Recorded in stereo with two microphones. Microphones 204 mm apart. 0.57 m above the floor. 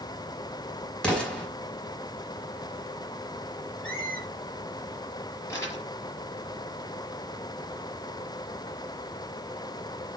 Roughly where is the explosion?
Centre.